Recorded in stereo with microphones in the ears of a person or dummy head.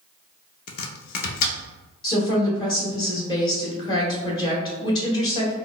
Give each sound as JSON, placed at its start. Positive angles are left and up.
{"t": 0.7, "sound": "chopping", "side_deg": 50, "distance_m": 0.6}
{"t": 2.0, "sound": "a woman speaking", "side_deg": 30, "distance_m": 1.4}